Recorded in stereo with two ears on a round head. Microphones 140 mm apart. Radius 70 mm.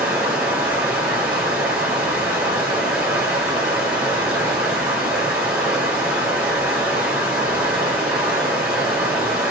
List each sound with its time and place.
0.0 s running water: 10° right (ahead or behind), 1.7 m